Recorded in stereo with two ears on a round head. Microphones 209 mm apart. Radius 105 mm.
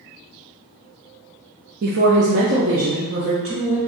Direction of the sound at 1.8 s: 45° right (ahead or behind).